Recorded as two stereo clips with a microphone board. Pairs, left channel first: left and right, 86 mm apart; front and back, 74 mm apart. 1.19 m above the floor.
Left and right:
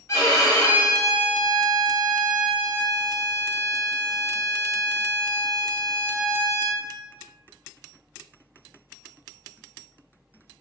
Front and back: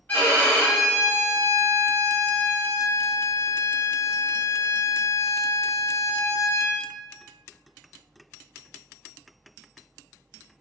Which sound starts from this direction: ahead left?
A violin, at 0.1 s.